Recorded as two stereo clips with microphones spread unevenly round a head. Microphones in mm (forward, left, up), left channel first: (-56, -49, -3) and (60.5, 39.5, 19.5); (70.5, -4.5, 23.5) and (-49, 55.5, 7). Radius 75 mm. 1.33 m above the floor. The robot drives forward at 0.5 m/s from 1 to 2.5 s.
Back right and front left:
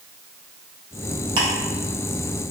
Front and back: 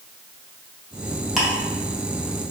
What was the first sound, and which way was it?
Ticking, 55° left.